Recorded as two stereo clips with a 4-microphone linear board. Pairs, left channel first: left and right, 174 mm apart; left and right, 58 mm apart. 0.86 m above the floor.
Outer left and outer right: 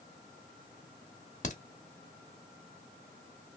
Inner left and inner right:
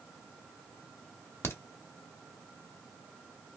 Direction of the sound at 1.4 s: 45° left (ahead or behind).